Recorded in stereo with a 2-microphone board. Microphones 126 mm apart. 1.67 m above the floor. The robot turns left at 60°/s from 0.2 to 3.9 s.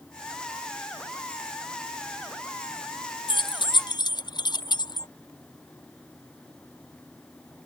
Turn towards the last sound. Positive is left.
turn(degrees=35)  # may be behind; listen again after turning